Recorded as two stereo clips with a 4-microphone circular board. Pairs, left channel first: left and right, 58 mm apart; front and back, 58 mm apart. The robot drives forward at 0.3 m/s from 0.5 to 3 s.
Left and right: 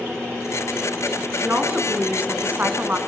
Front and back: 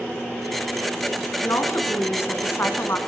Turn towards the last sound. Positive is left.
turn(degrees=-35)